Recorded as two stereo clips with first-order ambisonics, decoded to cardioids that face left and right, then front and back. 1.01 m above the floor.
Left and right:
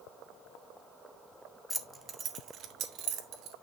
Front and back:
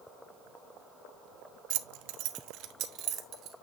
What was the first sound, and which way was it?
Keys jangling, straight behind.